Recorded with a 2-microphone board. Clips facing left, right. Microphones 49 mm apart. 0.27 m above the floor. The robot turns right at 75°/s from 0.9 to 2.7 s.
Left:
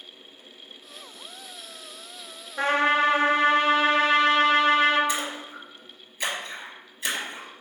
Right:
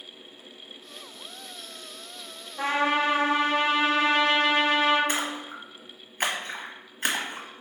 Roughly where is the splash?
Right.